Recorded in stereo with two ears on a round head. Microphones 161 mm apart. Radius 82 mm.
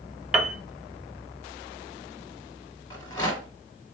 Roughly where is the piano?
Centre.